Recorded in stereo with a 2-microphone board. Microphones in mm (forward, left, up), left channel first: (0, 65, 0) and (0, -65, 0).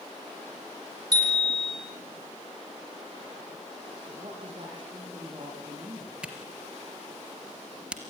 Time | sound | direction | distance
1.1 | a bicycle bell | 30° right (ahead or behind) | 5.5 m
4.1 | a woman speaking | 35° right (ahead or behind) | 7 m
6.2 | a camera shutter | 10° right (ahead or behind) | 3 m